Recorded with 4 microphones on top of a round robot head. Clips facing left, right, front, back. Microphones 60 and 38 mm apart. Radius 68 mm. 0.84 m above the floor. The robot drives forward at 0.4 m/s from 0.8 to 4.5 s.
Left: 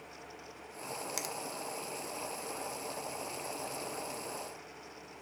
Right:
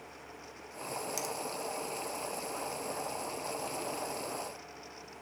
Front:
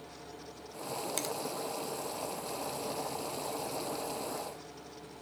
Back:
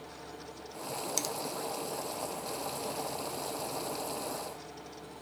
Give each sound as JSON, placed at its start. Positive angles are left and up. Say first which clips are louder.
{"t": 1.2, "sound": "a finger snap", "louder": "right 3 dB, even", "azimuth_deg": 60, "distance_m": 0.8}